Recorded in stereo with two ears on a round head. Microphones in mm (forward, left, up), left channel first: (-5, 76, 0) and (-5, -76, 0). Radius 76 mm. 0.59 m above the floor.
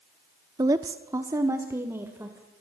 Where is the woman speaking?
20° right (ahead or behind), 0.8 m; by 2.5 s 15° right (ahead or behind), 2.5 m.